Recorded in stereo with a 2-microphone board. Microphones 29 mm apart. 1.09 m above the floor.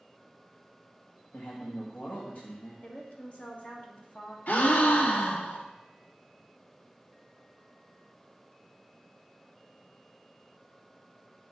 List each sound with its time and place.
1.3 s a man speaking: 70° left (ahead or behind), 1.5 m
2.8 s a woman speaking: 50° left (ahead or behind), 1.6 m
4.5 s a gasp: 65° left (ahead or behind), 0.9 m